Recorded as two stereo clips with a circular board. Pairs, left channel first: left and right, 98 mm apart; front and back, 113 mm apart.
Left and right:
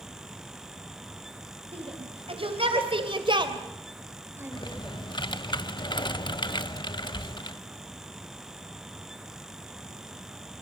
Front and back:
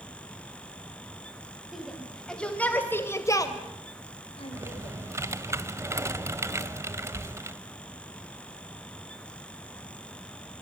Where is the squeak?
I don't hear a squeak.